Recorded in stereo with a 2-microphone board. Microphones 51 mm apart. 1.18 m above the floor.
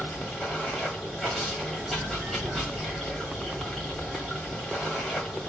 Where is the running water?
10° left (ahead or behind), 1.7 m.